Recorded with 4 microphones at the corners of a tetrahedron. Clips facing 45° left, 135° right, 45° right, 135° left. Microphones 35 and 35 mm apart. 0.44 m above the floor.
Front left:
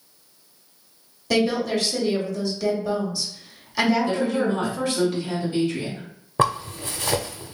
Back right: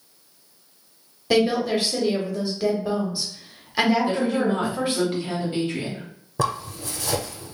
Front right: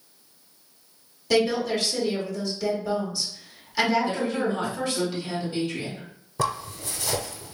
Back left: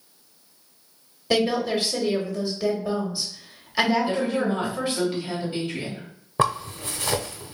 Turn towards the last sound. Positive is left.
turn(degrees=85)